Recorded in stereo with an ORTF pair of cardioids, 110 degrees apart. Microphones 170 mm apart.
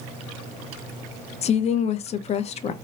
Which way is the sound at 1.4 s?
40° left.